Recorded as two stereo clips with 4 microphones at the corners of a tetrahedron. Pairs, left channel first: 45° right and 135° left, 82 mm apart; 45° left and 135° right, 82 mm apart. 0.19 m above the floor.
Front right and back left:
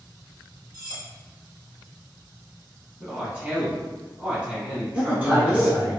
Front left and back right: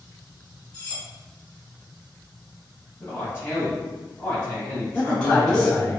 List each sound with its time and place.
0.7 s cutlery clinking: 115° left, 1.4 m
3.0 s a man speaking: 70° left, 1.1 m
4.9 s a man speaking: 110° left, 1.2 m